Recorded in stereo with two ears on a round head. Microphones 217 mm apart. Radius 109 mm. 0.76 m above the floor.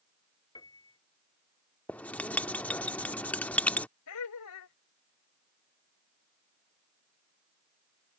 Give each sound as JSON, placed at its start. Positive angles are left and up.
{"t": 0.6, "sound": "a piano", "side_deg": 15}
{"t": 1.9, "sound": "writing", "side_deg": 5}
{"t": 4.1, "sound": "laughter", "side_deg": 80}